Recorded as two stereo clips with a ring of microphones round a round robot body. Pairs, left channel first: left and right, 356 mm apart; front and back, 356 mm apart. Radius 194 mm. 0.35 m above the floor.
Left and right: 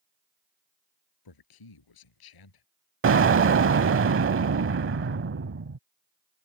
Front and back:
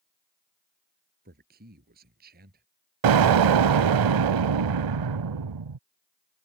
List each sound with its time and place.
1.2 s a man speaking: 110° left
3.0 s an explosion: 150° right